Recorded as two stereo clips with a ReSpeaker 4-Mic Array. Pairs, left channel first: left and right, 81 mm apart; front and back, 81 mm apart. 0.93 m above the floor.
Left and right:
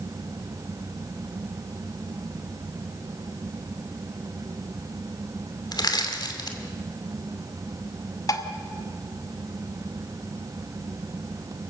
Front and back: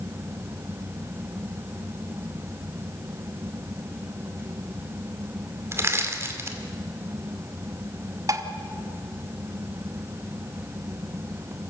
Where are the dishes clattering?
135° left, 1.3 m.